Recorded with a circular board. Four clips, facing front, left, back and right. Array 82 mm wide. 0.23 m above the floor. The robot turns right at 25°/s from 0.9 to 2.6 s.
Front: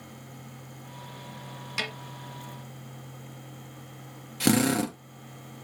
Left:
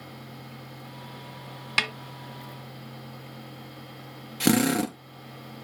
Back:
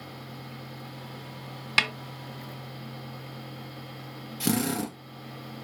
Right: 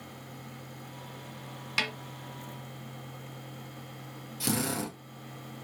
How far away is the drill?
About 1.7 m.